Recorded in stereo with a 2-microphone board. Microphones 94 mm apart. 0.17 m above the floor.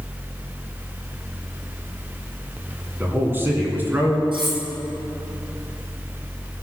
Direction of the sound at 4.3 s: 55° right (ahead or behind).